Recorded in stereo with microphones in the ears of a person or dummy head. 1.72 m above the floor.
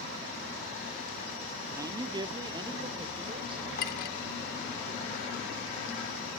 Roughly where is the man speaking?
Centre.